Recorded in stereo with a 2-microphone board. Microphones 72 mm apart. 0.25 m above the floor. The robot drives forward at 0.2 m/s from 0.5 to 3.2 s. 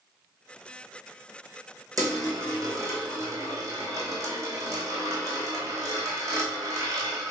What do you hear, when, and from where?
2.0 s a dropped coin: 50° right (ahead or behind), 1.8 m; by 7.3 s 45° right (ahead or behind), 2.0 m